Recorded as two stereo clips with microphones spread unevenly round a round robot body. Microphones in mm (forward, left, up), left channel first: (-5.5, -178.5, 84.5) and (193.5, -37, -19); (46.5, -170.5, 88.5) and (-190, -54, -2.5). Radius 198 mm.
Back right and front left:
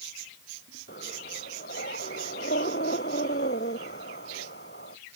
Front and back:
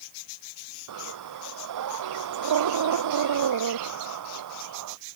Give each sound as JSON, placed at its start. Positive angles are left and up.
{"t": 0.9, "sound": "breathing", "azimuth_deg": 150}